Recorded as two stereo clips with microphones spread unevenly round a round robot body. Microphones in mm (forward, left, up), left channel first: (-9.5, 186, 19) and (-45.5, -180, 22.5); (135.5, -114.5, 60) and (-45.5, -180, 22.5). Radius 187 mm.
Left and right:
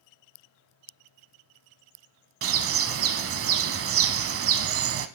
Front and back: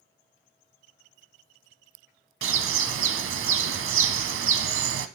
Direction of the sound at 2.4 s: 150° right.